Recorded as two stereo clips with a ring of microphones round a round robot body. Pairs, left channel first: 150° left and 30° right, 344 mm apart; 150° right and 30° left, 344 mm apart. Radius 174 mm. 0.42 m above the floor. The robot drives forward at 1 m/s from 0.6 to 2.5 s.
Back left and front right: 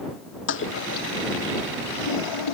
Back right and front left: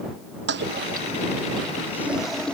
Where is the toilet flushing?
90° left; by 2.5 s 120° left.